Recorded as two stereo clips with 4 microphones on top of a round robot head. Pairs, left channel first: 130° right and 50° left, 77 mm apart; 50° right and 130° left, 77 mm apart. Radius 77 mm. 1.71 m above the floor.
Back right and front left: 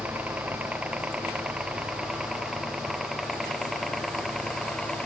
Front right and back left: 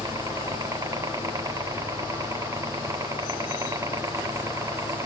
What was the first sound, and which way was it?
A helicopter, 110° left.